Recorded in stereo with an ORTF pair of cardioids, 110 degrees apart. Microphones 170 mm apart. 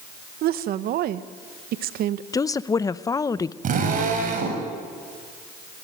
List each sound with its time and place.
0.4 s a woman speaking: 65° right, 1.0 m
2.3 s a woman speaking: 20° left, 0.7 m
3.6 s a drill: 50° right, 6.5 m